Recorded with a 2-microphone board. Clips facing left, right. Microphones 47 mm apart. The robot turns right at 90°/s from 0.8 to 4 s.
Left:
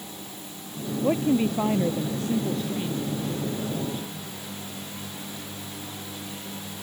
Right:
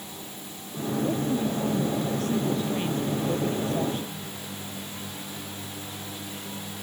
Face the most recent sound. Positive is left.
turn(degrees=-45)